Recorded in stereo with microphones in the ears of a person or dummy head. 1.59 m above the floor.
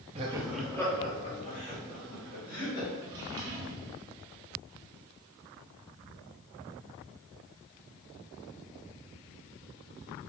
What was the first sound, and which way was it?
Laughter, 35° right (ahead or behind).